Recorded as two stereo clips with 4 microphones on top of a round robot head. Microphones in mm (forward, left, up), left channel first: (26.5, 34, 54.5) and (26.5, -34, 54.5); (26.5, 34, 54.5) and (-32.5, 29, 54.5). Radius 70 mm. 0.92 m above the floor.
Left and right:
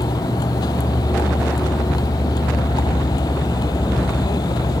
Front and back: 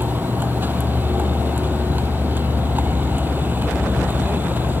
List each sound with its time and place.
0.0 s a vehicle: 125° left